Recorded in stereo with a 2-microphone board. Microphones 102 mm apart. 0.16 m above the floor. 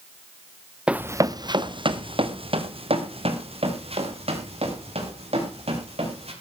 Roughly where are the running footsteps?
Centre.